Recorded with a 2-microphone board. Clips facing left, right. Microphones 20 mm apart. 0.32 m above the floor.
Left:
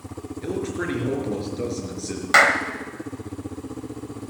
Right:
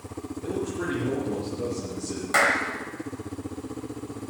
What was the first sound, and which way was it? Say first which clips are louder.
A man speaking: left 3 dB; 65° left (ahead or behind).